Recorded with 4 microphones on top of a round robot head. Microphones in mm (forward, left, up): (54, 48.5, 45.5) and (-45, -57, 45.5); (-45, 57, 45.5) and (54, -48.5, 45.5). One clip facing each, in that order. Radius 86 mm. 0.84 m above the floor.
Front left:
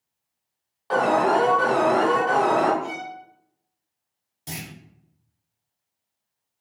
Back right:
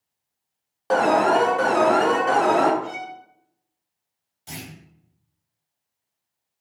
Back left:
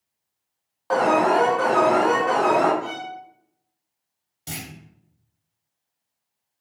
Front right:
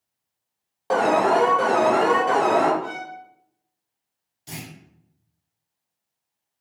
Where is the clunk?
100° left, 1.1 m.